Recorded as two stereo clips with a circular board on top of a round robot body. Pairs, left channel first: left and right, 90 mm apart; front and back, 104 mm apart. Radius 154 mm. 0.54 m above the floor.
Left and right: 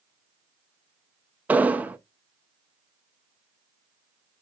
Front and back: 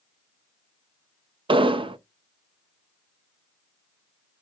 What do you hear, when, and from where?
1.5 s an explosion: 160° right, 0.6 m